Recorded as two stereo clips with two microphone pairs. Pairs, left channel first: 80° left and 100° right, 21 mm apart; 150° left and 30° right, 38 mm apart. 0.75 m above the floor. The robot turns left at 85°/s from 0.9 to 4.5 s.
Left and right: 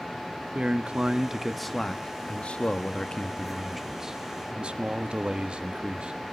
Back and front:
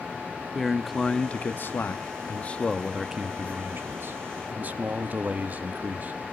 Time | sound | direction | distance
0.6 | a man speaking | 125° right | 0.7 m